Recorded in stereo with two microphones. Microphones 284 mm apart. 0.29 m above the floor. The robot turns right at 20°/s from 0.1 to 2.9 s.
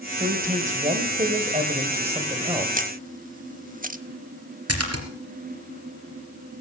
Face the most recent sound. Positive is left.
turn(degrees=-55)  # may be behind; listen again after turning